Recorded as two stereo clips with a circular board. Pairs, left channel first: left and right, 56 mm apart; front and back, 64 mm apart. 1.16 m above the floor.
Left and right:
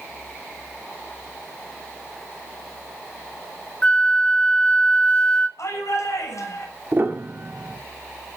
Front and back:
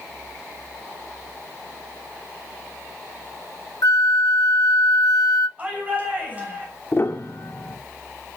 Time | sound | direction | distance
3.8 | a flute | 20° left | 1.0 m
5.6 | a shout | 115° left | 6.5 m
6.9 | a piano | 45° right | 1.7 m